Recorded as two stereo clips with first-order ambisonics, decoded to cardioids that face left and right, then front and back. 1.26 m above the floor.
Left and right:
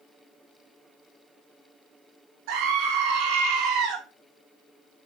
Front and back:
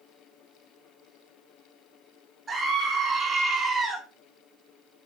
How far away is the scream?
About 3.5 m.